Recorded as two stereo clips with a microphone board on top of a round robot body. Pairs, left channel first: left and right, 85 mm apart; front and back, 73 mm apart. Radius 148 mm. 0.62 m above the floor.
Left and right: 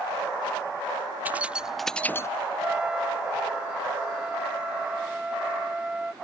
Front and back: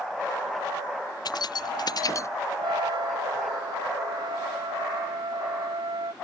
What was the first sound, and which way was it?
Keys jangling, 20° right.